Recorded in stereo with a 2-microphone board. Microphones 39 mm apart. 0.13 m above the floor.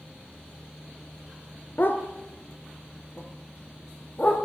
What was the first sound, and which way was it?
A dog barking, 50° left (ahead or behind).